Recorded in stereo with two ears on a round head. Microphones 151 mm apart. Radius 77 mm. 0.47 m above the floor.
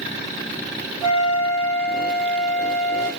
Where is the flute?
Centre (ahead or behind), 1.9 m.